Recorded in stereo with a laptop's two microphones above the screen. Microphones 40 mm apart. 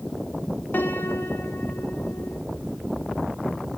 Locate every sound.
0.7 s a piano: 60° left (ahead or behind), 1.8 m